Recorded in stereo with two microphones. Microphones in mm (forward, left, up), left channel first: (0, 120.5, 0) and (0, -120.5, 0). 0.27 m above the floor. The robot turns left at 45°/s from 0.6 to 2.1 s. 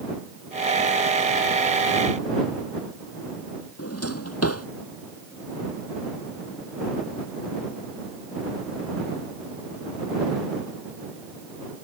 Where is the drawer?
85° left.